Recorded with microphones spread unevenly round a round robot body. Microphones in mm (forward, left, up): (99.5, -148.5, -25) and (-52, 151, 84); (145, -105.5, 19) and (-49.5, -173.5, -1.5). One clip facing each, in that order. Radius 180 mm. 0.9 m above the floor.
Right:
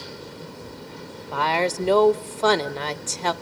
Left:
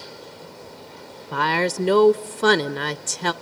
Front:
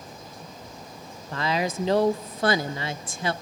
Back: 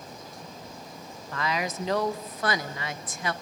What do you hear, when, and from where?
1.3 s a woman speaking: 35° left, 0.5 m